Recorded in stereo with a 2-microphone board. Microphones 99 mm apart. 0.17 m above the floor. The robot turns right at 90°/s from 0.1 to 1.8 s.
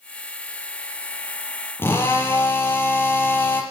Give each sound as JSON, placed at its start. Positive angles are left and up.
{"t": 1.8, "sound": "a drill", "side_deg": 25, "distance_m": 4.5}